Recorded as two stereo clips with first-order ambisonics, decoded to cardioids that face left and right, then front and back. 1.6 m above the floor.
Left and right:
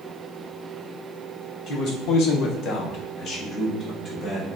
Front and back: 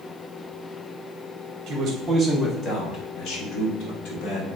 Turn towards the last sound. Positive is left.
turn(degrees=20)